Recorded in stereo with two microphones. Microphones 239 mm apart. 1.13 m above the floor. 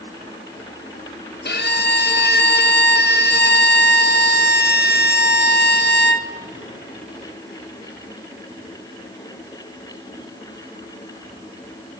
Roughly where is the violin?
Left.